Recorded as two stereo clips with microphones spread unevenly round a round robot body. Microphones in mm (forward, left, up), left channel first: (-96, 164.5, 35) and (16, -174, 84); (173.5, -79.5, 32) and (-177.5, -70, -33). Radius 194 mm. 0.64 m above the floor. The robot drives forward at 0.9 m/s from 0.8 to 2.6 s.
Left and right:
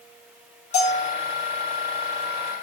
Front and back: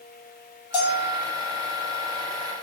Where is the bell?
40° left, 3.5 m.